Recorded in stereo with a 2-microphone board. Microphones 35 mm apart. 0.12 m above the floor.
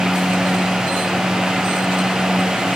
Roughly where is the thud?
No thud in this recording.